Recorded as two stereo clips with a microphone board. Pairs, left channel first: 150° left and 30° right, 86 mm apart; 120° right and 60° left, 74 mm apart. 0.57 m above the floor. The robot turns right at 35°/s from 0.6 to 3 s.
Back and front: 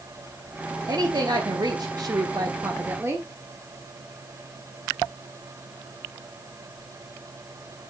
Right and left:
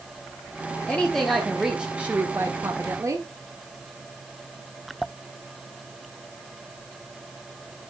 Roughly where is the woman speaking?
Ahead right.